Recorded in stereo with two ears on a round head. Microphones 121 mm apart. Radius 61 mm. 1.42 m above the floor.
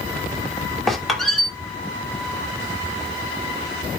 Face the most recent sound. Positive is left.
turn(degrees=0)  # may be behind; listen again after turning